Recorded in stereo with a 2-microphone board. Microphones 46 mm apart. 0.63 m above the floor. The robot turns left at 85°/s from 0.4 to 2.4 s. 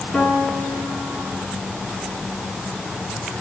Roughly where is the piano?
Ahead left.